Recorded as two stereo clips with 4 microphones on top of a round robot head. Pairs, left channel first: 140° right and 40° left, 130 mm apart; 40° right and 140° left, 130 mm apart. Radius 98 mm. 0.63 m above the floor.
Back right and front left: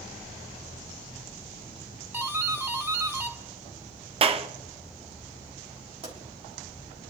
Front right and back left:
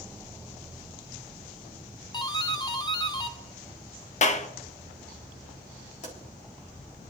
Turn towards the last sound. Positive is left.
turn(degrees=-10)